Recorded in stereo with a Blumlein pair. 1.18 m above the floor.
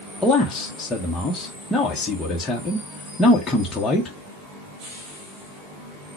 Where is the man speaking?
10° left, 0.8 m.